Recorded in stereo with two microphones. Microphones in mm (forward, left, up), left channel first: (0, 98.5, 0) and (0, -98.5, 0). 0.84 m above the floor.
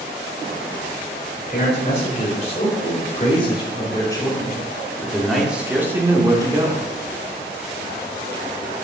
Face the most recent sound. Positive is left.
turn(degrees=-25)  # may be behind; listen again after turning